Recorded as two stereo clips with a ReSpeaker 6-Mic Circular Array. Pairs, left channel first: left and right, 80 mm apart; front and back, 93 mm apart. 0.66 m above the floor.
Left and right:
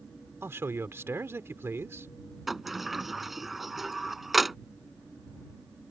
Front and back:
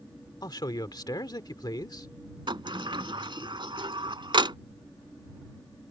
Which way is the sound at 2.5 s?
175° right.